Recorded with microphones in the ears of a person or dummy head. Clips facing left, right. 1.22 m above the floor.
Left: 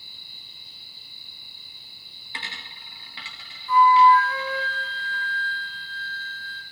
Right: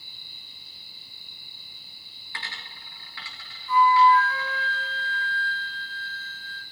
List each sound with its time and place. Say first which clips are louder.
2.3 s a dropped coin: left 1 dB; 20° left (ahead or behind), 1.7 m
3.7 s a flute: left 2 dB; 45° left (ahead or behind), 1.6 m